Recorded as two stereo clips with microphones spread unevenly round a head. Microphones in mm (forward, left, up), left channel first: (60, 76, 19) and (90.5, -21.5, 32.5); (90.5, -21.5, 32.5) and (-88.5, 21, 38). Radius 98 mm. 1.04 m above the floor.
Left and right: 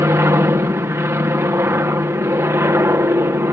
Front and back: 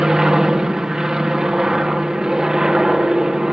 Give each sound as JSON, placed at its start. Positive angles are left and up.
{"t": 0.0, "sound": "an aircraft", "azimuth_deg": -110}